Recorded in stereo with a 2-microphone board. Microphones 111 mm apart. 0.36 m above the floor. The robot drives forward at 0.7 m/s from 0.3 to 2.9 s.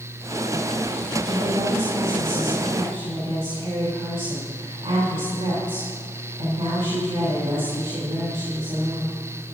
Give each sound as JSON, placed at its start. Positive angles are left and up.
{"t": 1.2, "sound": "a woman speaking", "side_deg": -60, "distance_m": 3.0}